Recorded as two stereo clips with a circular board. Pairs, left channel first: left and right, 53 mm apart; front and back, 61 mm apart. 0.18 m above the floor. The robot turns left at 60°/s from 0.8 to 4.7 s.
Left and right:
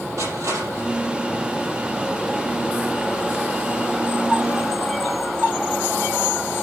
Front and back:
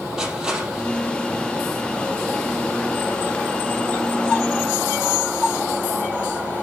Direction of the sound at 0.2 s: 100° right.